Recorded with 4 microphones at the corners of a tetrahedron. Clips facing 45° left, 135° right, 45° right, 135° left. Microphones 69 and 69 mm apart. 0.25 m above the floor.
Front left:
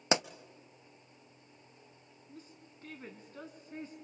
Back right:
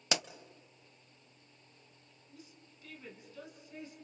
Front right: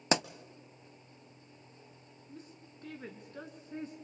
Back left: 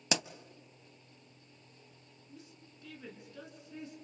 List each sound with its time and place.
0.1 s a pop: 10° right, 0.5 m
2.3 s a woman speaking: straight ahead, 3 m